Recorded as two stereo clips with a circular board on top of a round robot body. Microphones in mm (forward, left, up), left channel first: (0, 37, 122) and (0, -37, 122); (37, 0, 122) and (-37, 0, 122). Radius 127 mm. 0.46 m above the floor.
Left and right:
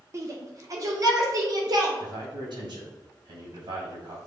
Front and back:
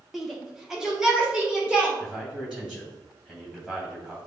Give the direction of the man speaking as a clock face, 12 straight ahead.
3 o'clock.